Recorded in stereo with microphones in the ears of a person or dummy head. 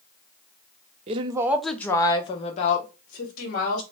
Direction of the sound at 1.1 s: 35° right (ahead or behind).